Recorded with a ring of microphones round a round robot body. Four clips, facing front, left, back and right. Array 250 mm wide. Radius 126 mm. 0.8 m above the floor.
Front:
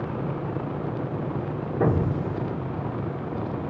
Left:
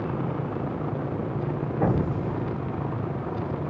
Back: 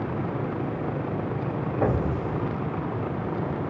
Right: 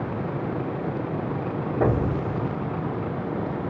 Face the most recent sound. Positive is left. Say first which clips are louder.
# right 2 dB, front 2 dB
turn(degrees=-40)